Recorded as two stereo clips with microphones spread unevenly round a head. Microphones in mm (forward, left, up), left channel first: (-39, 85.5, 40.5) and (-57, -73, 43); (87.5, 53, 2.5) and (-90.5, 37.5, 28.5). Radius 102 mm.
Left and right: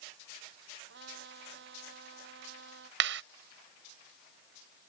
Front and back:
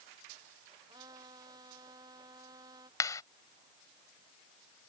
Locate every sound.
0.9 s a trumpet: 100° right
3.0 s a clap: 75° right